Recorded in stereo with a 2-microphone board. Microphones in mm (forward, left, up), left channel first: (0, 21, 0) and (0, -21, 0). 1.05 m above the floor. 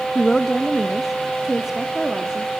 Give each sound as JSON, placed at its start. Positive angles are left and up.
{"t": 0.1, "sound": "a woman speaking", "side_deg": 10, "distance_m": 0.9}